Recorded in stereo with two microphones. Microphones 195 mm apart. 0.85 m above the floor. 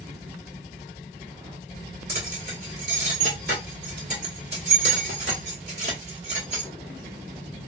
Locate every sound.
2.1 s keys jangling: 60° right (ahead or behind), 1.7 m